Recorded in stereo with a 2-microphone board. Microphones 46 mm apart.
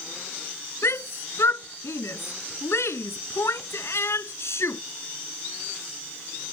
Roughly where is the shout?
Left.